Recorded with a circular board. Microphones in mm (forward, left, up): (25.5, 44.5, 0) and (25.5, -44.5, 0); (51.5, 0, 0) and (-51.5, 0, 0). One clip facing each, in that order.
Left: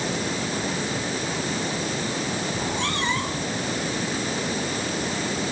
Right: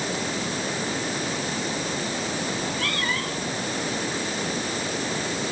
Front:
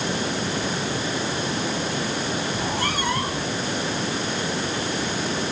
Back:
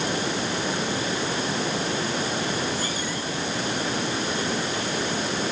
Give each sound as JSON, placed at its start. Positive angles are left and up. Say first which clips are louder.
{"t": 2.5, "sound": "a cat meowing", "louder": "left 2 dB, front 2 dB", "azimuth_deg": 25}